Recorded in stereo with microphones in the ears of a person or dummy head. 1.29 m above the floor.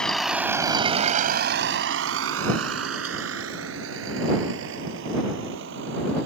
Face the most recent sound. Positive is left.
turn(degrees=-70)  # may be behind; listen again after turning